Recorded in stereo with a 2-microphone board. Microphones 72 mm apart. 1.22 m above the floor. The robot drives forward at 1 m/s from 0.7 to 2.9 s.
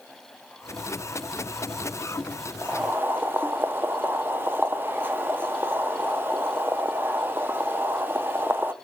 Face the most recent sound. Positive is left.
turn(degrees=-30)  # may be behind; listen again after turning